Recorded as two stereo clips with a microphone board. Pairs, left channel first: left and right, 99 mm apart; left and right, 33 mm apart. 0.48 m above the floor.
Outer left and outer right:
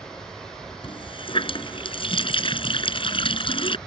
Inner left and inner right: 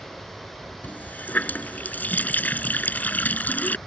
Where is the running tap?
60° left (ahead or behind).